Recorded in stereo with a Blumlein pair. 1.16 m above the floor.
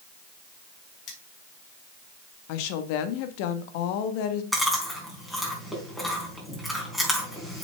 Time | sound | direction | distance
1.1 | cutlery clinking | 30° left | 3.5 m
2.5 | a woman speaking | 45° left | 1.4 m
4.5 | chewing | straight ahead | 4.5 m